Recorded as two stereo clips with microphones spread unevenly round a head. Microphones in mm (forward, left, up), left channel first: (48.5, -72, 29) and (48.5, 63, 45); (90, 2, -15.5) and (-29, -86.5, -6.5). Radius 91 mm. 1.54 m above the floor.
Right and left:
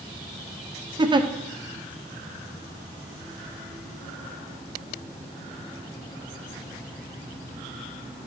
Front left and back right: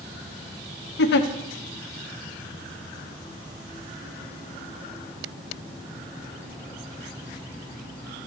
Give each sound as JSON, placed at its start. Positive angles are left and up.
{"t": 1.0, "sound": "a giggle", "azimuth_deg": 35, "distance_m": 0.8}